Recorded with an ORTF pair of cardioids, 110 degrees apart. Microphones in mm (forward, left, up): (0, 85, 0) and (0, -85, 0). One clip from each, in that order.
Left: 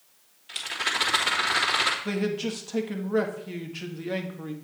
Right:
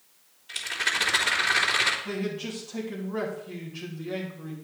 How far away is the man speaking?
About 2 m.